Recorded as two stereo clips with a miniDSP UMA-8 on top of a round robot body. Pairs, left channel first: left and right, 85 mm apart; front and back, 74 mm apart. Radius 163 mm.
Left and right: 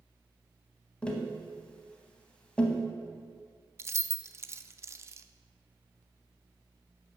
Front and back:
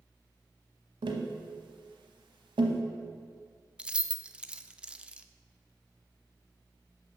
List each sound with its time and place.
1.0 s tapping: 170° left, 0.7 m
3.8 s keys jangling: 115° right, 0.6 m